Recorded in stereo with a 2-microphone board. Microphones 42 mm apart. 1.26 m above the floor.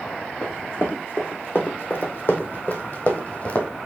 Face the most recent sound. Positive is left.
turn(degrees=35)  # may be behind; listen again after turning